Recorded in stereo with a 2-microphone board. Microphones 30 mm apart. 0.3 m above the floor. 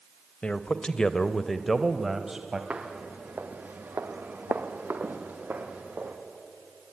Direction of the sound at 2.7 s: 40° right (ahead or behind).